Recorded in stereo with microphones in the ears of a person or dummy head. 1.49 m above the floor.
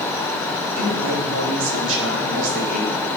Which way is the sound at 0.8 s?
75° right (ahead or behind).